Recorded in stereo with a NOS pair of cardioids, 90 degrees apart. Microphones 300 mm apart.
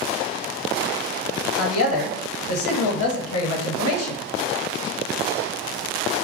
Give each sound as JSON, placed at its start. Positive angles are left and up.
{"t": 1.6, "sound": "a woman speaking", "azimuth_deg": 55, "distance_m": 1.0}